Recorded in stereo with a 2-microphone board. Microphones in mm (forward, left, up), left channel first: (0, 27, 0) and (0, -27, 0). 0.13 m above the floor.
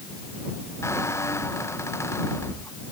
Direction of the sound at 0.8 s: 55° left (ahead or behind).